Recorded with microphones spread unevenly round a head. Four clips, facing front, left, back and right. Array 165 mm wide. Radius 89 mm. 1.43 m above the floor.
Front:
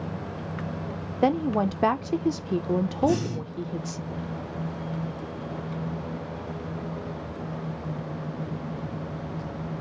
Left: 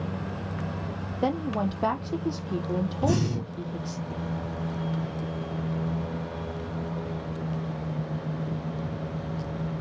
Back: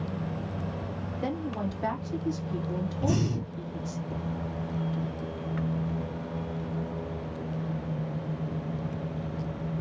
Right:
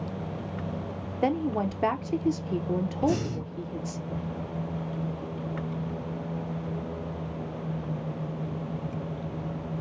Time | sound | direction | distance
1.2 | a woman speaking | 5° right | 0.5 m
3.0 | breathing | 115° left | 2.5 m